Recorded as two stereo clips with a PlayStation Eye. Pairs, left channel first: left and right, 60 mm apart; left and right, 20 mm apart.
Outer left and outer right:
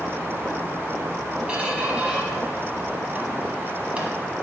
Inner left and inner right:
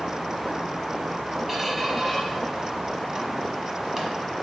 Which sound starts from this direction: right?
A squeak, at 1.5 s.